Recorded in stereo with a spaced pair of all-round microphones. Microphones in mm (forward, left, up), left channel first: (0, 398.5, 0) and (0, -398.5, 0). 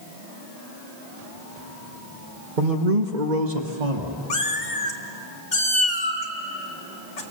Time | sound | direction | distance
2.6 | a man speaking | 75° right (ahead or behind) | 1.3 m
4.3 | a cat meowing | 65° left (ahead or behind) | 1.9 m